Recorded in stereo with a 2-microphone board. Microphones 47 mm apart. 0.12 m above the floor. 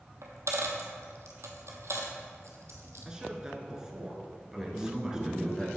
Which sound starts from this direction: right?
A dropped coin, at 0.2 s.